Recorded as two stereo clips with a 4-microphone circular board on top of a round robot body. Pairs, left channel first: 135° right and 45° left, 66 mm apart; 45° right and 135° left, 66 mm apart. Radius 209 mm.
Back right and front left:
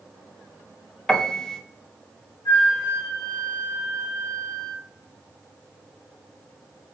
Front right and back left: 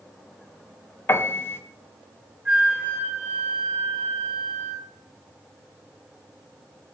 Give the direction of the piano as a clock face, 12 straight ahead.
2 o'clock.